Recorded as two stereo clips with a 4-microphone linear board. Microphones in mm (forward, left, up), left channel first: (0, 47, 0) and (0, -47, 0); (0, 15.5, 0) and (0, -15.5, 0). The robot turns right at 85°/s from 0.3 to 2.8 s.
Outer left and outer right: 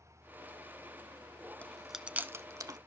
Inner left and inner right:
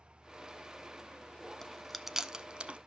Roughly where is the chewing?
Centre.